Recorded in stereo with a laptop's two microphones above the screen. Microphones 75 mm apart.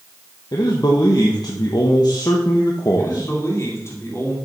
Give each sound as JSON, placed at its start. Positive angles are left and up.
{"t": 0.5, "sound": "a man speaking", "side_deg": 60, "distance_m": 1.2}
{"t": 3.0, "sound": "a man speaking", "side_deg": 40, "distance_m": 2.5}